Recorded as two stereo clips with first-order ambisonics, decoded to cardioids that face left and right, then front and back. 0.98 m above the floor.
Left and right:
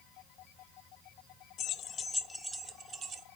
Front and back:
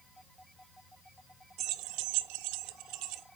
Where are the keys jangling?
140° left, 0.6 m; by 3.2 s 150° right, 0.9 m.